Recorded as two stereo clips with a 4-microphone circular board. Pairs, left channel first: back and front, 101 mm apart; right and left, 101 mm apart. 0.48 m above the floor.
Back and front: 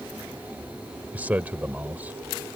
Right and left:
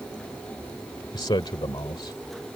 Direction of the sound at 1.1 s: 70° right.